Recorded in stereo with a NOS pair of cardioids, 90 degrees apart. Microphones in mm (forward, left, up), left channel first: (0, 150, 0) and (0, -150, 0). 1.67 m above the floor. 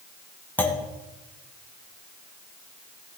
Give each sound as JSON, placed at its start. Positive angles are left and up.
{"t": 0.6, "sound": "a clunk", "azimuth_deg": 5, "distance_m": 1.8}